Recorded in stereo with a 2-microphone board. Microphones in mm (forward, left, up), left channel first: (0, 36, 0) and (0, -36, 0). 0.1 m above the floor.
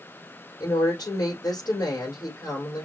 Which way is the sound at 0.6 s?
65° left (ahead or behind).